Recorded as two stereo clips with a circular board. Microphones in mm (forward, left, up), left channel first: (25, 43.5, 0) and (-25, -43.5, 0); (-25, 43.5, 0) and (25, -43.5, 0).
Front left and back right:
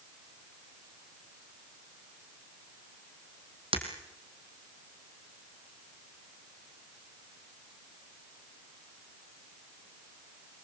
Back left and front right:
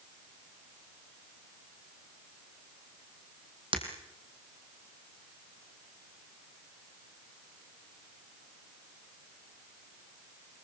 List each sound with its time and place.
3.7 s breaking glass: 90° right, 3 m